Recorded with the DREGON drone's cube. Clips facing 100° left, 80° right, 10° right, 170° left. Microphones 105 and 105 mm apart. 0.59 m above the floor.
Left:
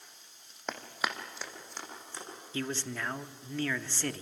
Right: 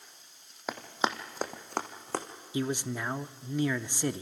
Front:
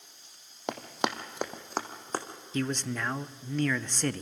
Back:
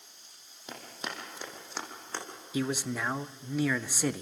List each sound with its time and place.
0.7 s running footsteps: 5° left, 1.6 m; by 2.2 s 65° right, 2.5 m
2.5 s a man speaking: 115° right, 0.5 m